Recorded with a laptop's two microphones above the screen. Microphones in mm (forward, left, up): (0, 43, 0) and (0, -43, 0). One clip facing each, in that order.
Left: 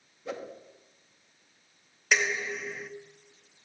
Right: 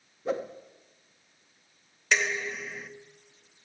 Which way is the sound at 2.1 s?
10° left (ahead or behind).